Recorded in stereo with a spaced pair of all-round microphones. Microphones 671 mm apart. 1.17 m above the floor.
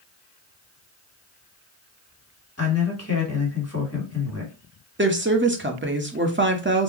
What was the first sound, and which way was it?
A man speaking, 20° left (ahead or behind).